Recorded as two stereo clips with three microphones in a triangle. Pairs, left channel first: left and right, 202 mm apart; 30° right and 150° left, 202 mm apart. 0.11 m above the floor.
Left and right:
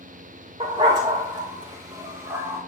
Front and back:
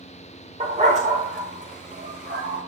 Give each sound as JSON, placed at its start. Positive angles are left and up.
{"t": 0.6, "sound": "a dog barking", "azimuth_deg": -150, "distance_m": 2.5}